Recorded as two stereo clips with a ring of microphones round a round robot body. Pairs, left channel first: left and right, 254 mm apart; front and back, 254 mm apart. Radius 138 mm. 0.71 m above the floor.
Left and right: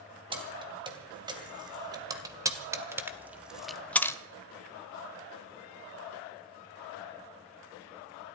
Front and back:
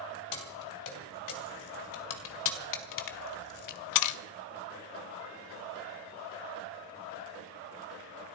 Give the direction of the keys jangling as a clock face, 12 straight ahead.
1 o'clock.